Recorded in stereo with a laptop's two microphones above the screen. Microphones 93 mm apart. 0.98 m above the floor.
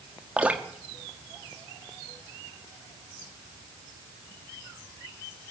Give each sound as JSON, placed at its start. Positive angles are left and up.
{"t": 0.4, "sound": "dripping", "side_deg": -15, "distance_m": 2.0}